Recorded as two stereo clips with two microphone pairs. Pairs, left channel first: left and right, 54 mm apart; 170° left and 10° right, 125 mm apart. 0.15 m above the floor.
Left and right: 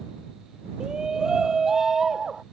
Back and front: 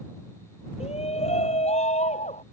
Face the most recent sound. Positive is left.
turn(degrees=-170)